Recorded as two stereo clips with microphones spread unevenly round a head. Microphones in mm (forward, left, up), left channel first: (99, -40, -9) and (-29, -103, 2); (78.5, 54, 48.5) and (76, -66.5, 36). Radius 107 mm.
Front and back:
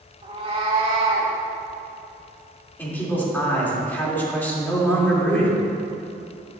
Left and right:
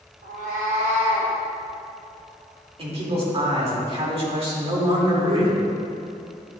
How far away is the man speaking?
About 2.5 m.